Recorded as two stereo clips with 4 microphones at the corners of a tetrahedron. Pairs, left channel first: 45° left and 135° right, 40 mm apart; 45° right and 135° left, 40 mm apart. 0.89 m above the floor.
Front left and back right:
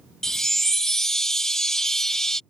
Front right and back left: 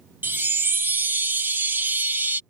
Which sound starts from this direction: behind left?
A chime, at 0.2 s.